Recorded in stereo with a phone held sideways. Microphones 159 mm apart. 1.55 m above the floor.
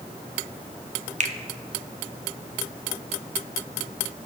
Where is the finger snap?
50° right (ahead or behind), 0.7 m.